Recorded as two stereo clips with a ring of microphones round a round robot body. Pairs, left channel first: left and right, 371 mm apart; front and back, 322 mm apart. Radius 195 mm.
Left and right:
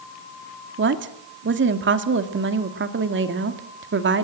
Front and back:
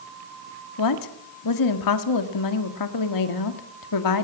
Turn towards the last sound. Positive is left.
turn(degrees=-30)